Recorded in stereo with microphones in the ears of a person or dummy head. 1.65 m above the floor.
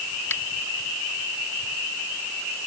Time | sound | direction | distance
0.3 | a finger snap | 10° left (ahead or behind) | ?